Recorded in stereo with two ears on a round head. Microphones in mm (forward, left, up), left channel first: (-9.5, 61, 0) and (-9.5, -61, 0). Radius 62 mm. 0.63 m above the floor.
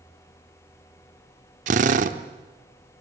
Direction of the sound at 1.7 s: 60° right (ahead or behind).